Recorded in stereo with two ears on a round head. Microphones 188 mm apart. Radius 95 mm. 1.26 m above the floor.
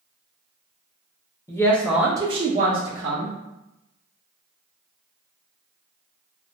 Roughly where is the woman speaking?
Centre.